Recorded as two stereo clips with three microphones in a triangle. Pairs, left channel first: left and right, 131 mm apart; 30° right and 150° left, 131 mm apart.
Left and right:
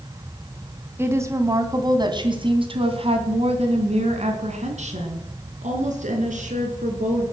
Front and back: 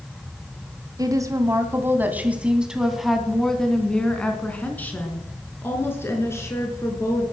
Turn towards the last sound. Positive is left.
turn(degrees=-95)